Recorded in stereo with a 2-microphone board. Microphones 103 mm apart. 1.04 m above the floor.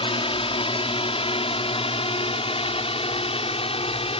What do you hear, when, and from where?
0.0 s a drone: 60° left (ahead or behind); by 4.2 s 65° left (ahead or behind)